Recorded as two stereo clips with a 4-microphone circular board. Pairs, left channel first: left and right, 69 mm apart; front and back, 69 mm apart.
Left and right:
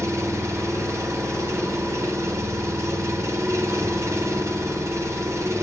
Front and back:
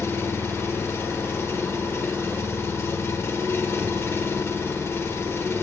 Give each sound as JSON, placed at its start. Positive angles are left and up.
{"t": 0.0, "sound": "an engine running", "azimuth_deg": -50, "distance_m": 1.6}